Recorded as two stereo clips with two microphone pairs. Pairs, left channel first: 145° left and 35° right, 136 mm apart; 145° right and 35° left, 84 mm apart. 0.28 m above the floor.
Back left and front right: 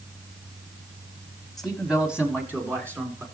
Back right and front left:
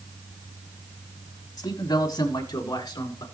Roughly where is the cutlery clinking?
No cutlery clinking in this recording.